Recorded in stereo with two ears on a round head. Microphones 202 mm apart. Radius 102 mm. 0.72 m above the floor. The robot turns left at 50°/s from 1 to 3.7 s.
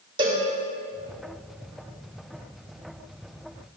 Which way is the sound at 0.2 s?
20° right (ahead or behind).